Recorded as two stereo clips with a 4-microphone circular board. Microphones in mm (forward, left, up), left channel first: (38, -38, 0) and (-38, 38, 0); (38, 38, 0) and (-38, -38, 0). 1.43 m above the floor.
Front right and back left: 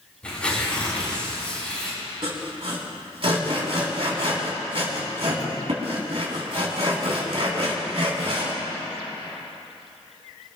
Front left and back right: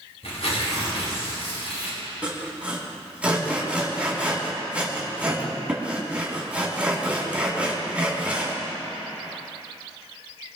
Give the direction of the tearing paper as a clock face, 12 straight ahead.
11 o'clock.